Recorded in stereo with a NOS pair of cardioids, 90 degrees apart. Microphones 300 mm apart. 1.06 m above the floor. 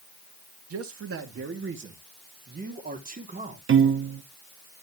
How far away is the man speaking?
About 2 m.